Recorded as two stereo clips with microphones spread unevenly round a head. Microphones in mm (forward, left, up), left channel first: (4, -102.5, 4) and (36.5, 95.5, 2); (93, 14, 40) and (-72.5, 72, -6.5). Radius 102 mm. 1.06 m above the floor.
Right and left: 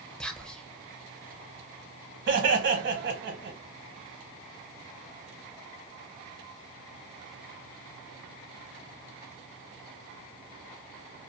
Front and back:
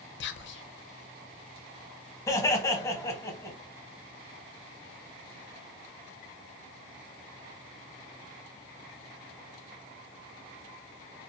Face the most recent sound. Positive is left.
turn(degrees=60)